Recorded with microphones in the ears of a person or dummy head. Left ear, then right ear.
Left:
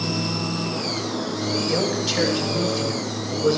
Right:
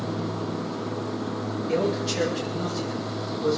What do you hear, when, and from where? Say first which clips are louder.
1.7 s a man speaking: right 1 dB; 15° left (ahead or behind), 7 m